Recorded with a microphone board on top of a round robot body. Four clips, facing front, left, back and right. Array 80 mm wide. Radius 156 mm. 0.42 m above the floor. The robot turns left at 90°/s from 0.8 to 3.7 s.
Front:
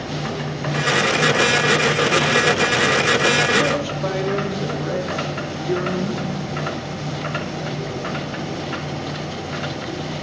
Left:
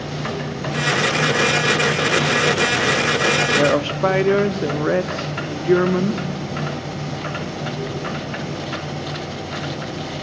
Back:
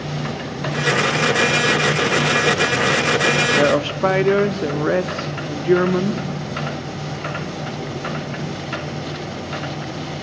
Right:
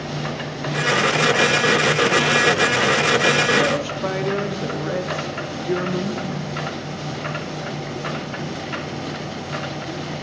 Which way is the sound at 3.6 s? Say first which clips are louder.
Left 3 dB, back 4 dB; 155° left.